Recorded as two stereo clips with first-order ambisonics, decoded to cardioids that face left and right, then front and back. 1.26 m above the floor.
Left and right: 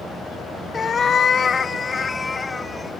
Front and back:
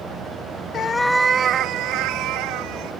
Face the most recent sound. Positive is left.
turn(degrees=170)